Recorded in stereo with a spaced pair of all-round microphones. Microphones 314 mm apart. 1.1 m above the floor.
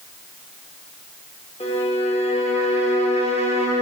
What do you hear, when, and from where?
1.6 s a violin: 20° left (ahead or behind), 0.9 m